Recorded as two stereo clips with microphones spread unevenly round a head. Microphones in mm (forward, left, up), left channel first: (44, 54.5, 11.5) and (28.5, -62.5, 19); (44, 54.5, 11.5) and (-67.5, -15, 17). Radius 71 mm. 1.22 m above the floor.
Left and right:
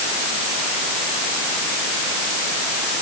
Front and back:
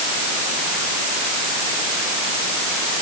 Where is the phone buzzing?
No phone buzzing in this recording.